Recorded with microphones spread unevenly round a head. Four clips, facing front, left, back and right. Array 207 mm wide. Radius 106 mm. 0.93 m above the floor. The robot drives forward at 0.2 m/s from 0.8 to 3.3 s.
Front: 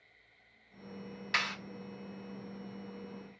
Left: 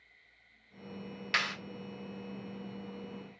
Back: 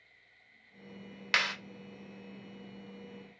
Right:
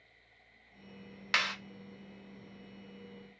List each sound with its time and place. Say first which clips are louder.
1.3 s a clap: right 1 dB, back 3 dB; 160° right, 2.5 m